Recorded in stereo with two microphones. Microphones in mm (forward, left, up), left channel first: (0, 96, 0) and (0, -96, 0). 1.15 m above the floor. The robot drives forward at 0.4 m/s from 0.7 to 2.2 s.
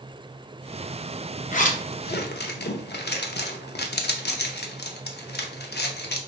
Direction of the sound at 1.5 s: 40° left (ahead or behind).